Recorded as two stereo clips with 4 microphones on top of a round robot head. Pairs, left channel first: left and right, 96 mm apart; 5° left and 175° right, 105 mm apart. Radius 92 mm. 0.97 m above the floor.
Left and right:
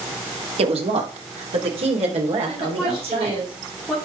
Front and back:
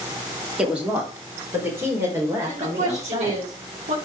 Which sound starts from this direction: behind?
A woman speaking, at 2.5 s.